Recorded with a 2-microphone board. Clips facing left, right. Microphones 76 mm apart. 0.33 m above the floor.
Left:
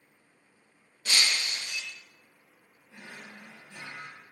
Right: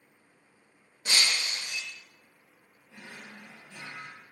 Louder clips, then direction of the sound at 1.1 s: Even; 25° right (ahead or behind).